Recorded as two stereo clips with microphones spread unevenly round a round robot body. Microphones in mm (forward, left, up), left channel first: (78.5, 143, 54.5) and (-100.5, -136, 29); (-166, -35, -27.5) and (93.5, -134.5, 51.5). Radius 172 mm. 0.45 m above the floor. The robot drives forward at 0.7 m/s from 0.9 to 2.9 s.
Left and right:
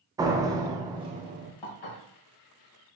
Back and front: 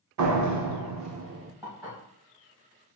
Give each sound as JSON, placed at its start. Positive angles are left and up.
{"t": 0.2, "sound": "a door slam", "azimuth_deg": -45, "distance_m": 0.7}
{"t": 1.6, "sound": "dishes clattering", "azimuth_deg": 65, "distance_m": 1.6}